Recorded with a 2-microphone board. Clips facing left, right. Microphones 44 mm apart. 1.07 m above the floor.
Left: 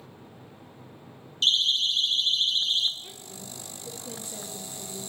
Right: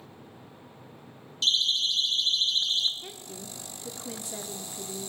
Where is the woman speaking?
80° right, 2.5 m.